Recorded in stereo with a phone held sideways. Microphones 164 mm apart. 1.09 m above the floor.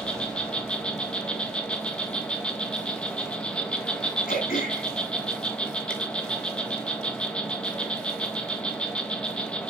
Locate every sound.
0.0 s an insect: 5° left (ahead or behind), 1.7 m
4.3 s throat clearing: 60° left (ahead or behind), 6 m